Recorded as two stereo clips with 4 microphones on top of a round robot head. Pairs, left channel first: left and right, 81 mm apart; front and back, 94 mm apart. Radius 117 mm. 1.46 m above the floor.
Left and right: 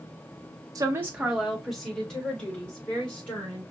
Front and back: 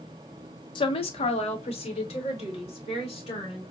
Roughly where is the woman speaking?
Ahead right.